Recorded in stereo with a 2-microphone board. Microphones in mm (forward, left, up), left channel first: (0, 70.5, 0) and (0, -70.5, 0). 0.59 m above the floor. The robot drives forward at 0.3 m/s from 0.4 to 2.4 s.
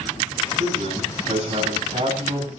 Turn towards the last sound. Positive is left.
turn(degrees=-50)  # may be behind; listen again after turning